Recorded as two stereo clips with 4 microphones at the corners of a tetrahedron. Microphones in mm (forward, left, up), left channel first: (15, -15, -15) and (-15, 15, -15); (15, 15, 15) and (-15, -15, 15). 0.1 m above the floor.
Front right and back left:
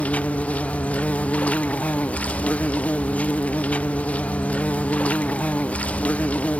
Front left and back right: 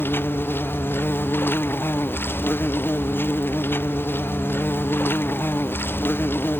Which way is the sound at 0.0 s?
15° left.